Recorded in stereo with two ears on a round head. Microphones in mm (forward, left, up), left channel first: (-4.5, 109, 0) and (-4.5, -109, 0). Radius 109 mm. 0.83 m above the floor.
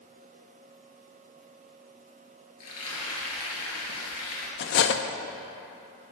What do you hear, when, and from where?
2.6 s frying: 75° left (ahead or behind), 2.5 m
4.6 s cutlery clinking: 50° left (ahead or behind), 0.5 m